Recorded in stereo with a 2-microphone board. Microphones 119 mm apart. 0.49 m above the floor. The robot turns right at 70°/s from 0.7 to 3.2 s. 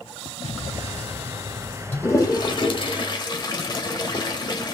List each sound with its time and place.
0.4 s an explosion: 75° left, 1.8 m; by 2.9 s 130° right, 1.8 m
1.9 s a toilet flushing: 20° left (ahead or behind), 1.3 m; by 4.7 s 40° left (ahead or behind), 1.3 m